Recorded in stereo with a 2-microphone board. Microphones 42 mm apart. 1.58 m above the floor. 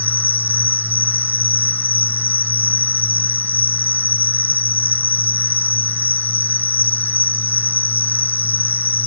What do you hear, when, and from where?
0.0 s an insect: 50° left (ahead or behind)